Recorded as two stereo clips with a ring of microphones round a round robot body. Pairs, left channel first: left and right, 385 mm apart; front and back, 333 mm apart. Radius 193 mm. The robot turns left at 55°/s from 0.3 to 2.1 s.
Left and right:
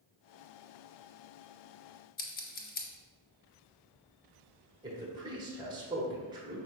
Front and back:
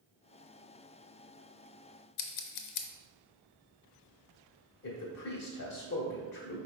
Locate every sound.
2.2 s scissors: 20° left, 0.6 m
4.8 s a man speaking: 20° right, 1.1 m